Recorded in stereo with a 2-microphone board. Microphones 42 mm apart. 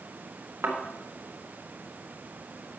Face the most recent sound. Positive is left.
turn(degrees=-75)  # may be behind; listen again after turning